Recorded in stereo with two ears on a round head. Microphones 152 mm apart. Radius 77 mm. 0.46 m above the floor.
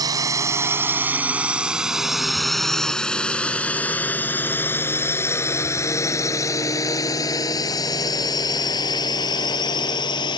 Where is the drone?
20° right (ahead or behind); by 10.4 s 25° left (ahead or behind).